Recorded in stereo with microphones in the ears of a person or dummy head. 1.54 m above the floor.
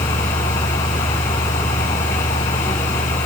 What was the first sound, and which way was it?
Only background noise.